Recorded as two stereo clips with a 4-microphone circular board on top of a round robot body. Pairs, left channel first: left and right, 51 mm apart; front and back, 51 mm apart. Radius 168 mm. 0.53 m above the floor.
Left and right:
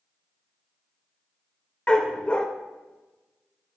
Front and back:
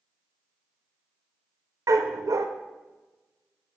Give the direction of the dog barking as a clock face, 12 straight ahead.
7 o'clock.